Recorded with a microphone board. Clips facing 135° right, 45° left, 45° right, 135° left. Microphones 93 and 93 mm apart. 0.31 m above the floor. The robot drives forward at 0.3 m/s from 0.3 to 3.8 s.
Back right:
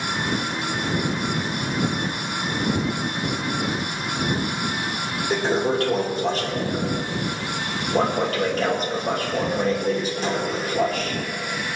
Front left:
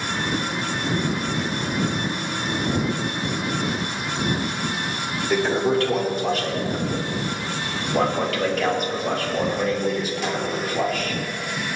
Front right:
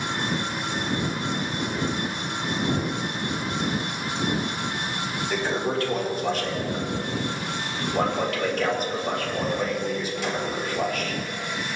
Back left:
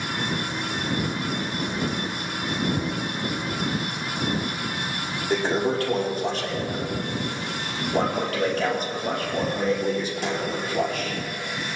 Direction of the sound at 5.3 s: 175° left.